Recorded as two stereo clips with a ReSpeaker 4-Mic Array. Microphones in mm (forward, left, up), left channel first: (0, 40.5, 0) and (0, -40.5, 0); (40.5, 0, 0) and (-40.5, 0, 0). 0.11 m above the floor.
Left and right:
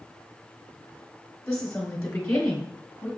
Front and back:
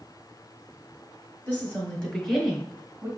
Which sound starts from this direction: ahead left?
A woman speaking, at 1.5 s.